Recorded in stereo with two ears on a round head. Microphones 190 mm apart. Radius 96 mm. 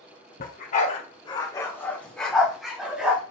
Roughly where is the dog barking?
Left.